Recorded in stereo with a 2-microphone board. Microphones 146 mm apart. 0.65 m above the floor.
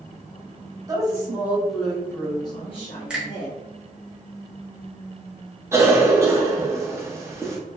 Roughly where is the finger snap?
Centre.